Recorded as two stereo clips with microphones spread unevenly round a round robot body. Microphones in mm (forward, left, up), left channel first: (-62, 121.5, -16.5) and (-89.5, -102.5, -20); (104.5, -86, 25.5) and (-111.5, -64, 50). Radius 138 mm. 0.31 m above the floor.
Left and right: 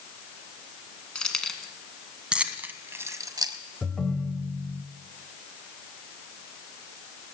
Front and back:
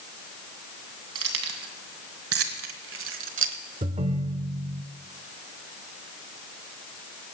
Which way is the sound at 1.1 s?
170° left.